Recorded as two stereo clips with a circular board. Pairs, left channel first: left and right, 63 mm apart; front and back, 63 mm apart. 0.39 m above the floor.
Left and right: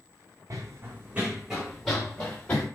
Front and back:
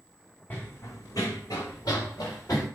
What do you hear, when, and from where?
0.5 s running footsteps: 65° right, 1.0 m; by 2.7 s 20° left, 2 m